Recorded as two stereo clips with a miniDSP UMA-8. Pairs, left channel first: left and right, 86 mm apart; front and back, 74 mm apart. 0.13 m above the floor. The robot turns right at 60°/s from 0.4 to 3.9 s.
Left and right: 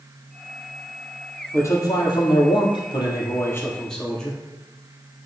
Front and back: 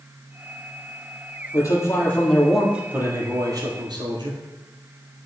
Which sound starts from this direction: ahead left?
A man speaking, at 1.5 s.